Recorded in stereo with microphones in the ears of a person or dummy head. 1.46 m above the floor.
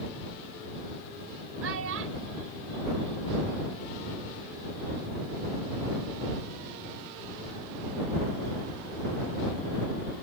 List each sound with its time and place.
1.6 s a child speaking: 80° right; by 3.9 s 55° right (ahead or behind)